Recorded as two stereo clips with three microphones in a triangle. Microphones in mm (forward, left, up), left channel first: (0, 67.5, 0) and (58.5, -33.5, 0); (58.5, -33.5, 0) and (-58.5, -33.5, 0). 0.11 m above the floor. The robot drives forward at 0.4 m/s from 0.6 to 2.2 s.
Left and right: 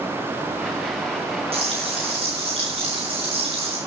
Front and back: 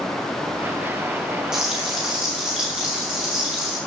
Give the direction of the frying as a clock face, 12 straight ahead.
3 o'clock.